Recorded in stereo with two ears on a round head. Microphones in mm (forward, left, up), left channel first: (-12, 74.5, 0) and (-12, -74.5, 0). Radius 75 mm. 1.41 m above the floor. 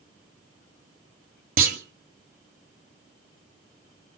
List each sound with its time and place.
1.6 s a clunk: 55° right (ahead or behind), 1.8 m